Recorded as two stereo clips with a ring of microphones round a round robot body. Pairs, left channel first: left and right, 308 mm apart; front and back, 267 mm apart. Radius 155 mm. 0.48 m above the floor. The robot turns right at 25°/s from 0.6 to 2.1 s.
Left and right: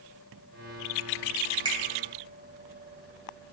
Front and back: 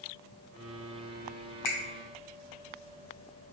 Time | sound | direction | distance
1.6 | a finger snap | 15° right | 1.6 m